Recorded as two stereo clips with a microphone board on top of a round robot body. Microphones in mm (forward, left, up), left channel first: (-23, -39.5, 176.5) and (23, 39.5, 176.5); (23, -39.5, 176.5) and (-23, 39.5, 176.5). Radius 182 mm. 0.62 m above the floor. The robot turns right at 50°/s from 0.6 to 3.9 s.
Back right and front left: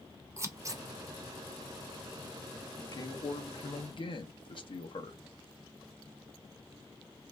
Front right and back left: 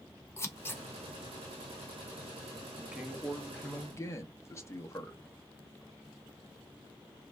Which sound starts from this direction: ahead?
Scissors, at 0.4 s.